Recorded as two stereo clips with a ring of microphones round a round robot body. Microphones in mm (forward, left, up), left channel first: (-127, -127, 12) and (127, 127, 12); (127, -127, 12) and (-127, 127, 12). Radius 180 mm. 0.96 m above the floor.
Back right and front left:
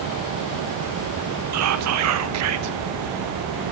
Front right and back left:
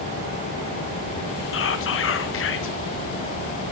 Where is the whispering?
5° left, 0.8 m.